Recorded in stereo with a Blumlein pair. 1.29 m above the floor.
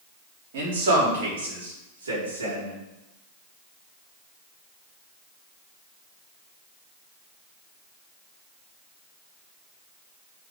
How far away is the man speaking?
About 3.5 m.